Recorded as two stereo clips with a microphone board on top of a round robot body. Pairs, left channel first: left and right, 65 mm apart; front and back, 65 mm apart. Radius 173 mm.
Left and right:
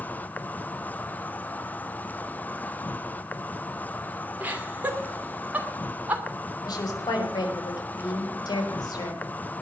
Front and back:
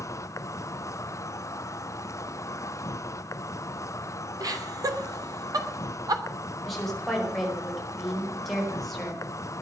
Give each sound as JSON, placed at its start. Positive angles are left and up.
{"t": 0.0, "sound": "an insect", "azimuth_deg": 30, "distance_m": 1.1}
{"t": 4.4, "sound": "laughter", "azimuth_deg": -160, "distance_m": 3.0}
{"t": 6.7, "sound": "a woman speaking", "azimuth_deg": 90, "distance_m": 5.0}